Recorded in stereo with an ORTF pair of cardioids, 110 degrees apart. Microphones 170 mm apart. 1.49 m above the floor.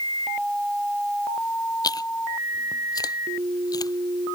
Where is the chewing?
20° left.